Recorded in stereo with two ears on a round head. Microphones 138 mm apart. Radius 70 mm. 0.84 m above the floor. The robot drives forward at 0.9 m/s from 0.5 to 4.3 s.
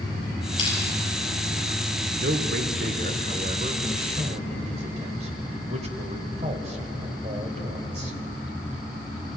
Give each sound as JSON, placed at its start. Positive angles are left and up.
{"t": 0.6, "sound": "crushing", "side_deg": 30, "distance_m": 9.5}
{"t": 2.1, "sound": "a man speaking", "side_deg": -80, "distance_m": 2.0}